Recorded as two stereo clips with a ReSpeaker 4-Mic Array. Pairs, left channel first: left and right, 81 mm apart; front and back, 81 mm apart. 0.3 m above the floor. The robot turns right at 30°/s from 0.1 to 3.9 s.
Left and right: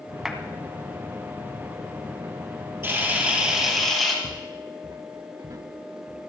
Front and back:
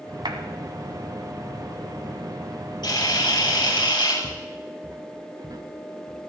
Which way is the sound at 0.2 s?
175° right.